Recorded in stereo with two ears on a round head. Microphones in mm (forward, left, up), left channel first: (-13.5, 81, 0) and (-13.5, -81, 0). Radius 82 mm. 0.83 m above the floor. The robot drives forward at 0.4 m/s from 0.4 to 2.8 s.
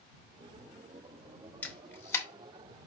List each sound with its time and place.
1.6 s a camera shutter: 10° left (ahead or behind), 0.7 m; by 2.3 s 15° left (ahead or behind), 0.5 m